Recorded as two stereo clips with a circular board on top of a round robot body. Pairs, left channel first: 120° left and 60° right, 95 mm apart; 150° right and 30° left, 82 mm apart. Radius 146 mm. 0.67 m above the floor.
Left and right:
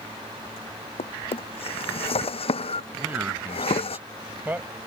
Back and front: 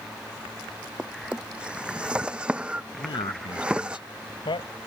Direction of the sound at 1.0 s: 105° left.